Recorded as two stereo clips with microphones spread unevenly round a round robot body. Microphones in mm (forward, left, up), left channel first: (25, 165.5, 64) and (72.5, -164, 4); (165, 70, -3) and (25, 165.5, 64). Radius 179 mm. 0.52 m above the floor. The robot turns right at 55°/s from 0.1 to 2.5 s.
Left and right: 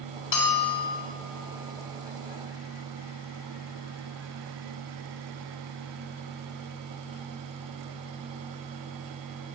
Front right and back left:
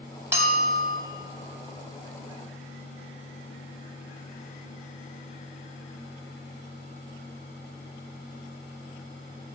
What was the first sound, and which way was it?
A bell, 65° left.